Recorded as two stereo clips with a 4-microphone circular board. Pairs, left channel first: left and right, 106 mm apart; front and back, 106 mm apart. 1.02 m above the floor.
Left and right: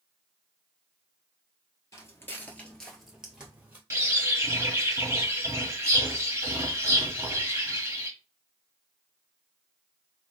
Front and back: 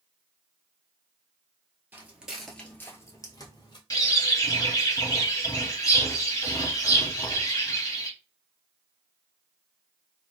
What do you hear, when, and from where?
1.9 s footsteps: 120° left, 1.1 m; by 3.8 s 20° right, 1.4 m
3.9 s a bird: 35° right, 1.1 m